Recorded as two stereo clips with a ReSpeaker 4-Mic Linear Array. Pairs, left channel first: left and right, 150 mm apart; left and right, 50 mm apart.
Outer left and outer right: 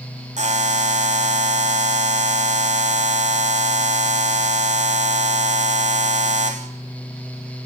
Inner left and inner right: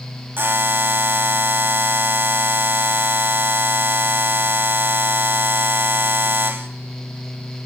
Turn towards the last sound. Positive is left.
turn(degrees=-50)  # may be behind; listen again after turning